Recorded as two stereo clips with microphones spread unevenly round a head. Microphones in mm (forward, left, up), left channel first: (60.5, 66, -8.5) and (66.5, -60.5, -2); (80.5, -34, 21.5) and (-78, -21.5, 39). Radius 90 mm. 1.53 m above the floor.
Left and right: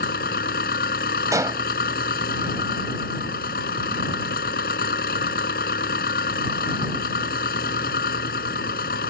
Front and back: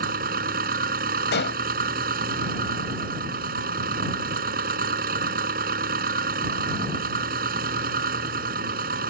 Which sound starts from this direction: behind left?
An engine running, at 0.0 s.